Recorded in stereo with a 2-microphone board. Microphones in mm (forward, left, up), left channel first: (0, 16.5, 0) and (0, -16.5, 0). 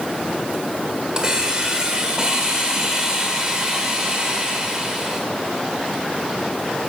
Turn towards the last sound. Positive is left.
turn(degrees=-20)  # may be behind; listen again after turning